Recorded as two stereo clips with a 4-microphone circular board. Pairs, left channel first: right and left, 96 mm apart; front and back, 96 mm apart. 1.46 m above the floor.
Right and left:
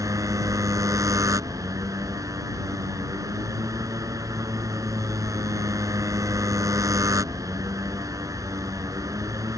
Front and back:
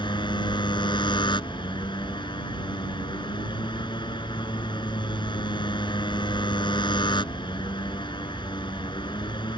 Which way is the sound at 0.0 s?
35° left.